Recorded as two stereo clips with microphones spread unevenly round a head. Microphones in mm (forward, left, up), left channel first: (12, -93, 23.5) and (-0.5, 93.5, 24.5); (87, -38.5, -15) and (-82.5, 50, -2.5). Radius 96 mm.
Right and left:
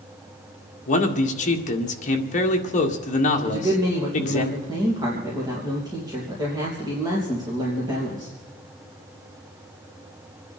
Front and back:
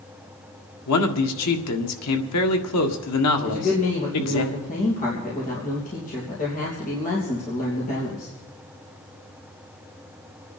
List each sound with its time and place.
0.9 s a man speaking: 35° right, 1.8 m
3.4 s a man speaking: 25° left, 3 m